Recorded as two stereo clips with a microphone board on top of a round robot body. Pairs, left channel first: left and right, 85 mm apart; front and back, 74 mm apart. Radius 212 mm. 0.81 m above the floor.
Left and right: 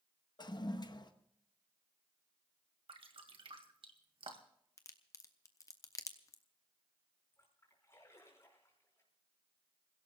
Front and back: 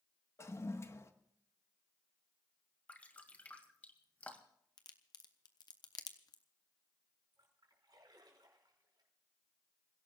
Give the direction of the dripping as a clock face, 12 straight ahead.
2 o'clock.